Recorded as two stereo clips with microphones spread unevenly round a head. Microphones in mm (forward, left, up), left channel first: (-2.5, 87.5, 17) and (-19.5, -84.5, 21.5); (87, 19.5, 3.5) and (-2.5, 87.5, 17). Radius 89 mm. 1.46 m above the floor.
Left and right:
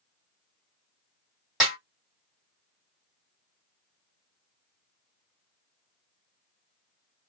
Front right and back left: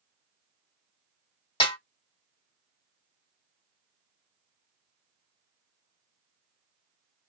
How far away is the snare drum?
About 1.7 m.